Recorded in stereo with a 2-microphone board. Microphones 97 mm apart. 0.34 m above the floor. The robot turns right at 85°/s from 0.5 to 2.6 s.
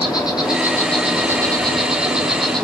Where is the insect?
135° left, 1.6 m; by 2.6 s 45° right, 1.6 m.